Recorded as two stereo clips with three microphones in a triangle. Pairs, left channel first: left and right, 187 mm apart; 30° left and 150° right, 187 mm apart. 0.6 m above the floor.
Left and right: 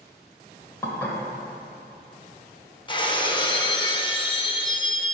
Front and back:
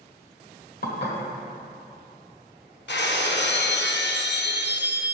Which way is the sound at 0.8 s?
15° left.